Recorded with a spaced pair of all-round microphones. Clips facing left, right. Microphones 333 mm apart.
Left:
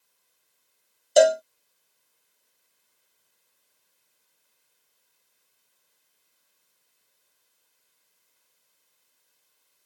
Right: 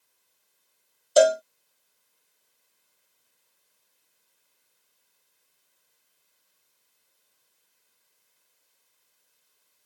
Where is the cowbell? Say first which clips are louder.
Left 1 dB; 5° right (ahead or behind).